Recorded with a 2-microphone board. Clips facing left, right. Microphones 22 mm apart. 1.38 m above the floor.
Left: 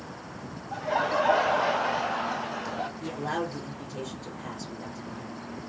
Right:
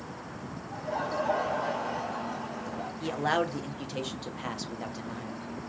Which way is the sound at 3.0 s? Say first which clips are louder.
Right 7 dB; 55° right (ahead or behind).